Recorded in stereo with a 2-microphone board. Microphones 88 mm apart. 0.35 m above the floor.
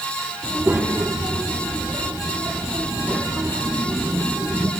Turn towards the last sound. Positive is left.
turn(degrees=-15)  # may be behind; listen again after turning